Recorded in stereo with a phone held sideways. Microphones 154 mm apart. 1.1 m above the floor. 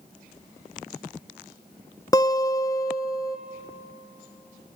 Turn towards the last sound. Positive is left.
turn(degrees=20)  # may be behind; listen again after turning